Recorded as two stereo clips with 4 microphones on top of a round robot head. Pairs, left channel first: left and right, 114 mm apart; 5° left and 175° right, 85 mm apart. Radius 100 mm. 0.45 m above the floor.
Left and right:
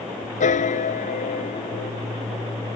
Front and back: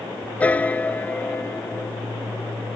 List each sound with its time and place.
0.4 s a piano: 75° left